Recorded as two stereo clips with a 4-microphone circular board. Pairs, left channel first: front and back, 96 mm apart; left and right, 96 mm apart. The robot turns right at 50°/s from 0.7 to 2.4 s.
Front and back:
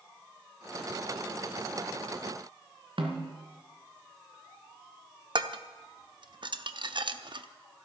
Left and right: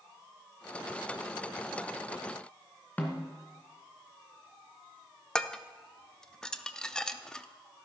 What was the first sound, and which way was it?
A snare drum, 165° left.